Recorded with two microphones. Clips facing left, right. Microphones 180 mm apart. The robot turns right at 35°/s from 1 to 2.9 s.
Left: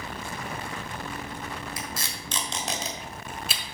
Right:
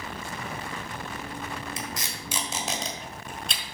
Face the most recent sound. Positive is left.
turn(degrees=5)  # may be behind; listen again after turning